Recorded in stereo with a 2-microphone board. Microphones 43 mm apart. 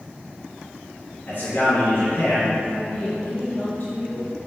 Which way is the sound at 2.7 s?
40° left (ahead or behind).